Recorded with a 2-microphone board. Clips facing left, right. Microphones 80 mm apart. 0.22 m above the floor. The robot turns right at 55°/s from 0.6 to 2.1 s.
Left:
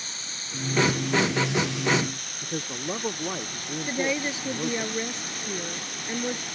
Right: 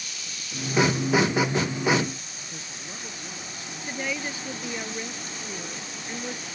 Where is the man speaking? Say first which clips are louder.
Left 9 dB; 50° left (ahead or behind).